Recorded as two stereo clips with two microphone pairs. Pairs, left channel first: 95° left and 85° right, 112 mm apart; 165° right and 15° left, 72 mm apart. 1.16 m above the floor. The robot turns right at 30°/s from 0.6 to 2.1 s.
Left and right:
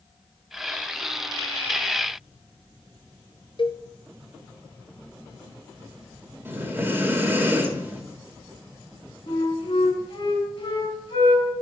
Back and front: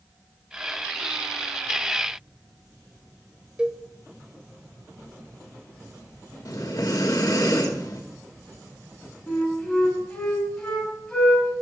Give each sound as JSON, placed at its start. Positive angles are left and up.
{"t": 3.6, "sound": "a cowbell", "azimuth_deg": 90, "distance_m": 0.7}
{"t": 6.5, "sound": "breathing", "azimuth_deg": -155, "distance_m": 1.6}
{"t": 9.3, "sound": "a flute", "azimuth_deg": 120, "distance_m": 4.5}